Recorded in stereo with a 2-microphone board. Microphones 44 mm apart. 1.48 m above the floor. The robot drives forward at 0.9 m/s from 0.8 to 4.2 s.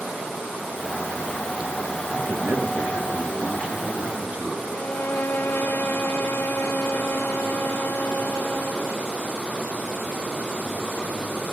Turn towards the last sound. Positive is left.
turn(degrees=55)  # may be behind; listen again after turning